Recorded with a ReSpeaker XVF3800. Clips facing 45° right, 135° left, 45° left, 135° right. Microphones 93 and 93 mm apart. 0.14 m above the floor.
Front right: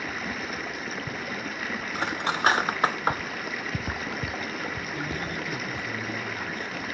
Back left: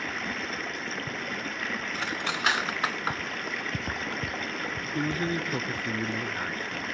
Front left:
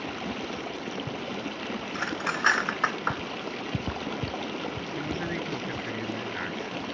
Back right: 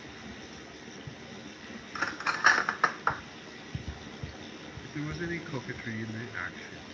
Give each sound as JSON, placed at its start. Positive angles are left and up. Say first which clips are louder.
{"t": 0.0, "sound": "running water", "louder": "front right 1 dB, front left 12 dB", "azimuth_deg": 40, "distance_m": 1.1}
{"t": 1.9, "sound": "cutlery clinking", "louder": "front right 7 dB, even", "azimuth_deg": -50, "distance_m": 0.7}
{"t": 4.8, "sound": "a man speaking", "louder": "back left 3 dB, front left 4 dB", "azimuth_deg": 140, "distance_m": 2.0}